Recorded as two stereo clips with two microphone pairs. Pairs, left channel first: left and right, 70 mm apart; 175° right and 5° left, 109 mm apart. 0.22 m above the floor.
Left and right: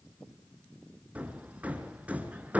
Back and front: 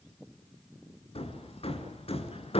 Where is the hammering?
160° right, 2.5 m.